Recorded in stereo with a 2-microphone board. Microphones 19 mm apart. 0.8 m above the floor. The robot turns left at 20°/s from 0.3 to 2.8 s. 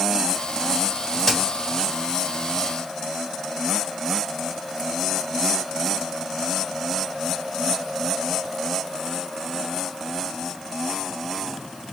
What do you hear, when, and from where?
1.2 s a crack: 10° left (ahead or behind), 2.0 m; by 1.4 s 15° left (ahead or behind), 2.0 m